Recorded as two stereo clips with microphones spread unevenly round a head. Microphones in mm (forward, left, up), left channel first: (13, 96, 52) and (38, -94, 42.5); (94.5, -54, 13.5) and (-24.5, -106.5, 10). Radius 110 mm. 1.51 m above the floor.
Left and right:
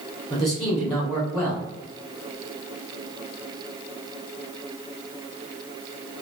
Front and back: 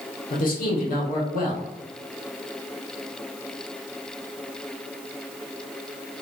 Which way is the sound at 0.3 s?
25° left.